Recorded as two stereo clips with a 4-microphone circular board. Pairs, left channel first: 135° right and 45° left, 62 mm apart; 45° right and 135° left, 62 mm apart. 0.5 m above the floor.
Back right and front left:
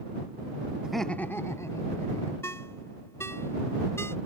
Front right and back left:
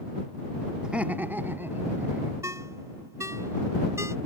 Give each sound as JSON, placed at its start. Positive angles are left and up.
{"t": 0.8, "sound": "laughter", "azimuth_deg": 85}
{"t": 2.4, "sound": "a ringtone", "azimuth_deg": 175}